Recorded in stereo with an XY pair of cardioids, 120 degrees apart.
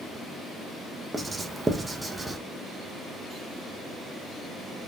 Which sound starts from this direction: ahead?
Writing, at 1.1 s.